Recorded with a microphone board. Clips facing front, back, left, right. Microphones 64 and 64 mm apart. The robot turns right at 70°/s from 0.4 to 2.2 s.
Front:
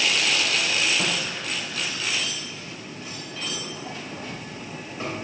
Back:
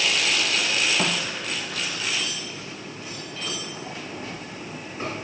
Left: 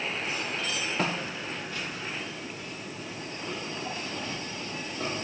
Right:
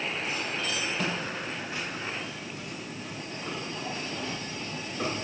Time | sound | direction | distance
1.0 | footsteps | 130° left | 1.5 m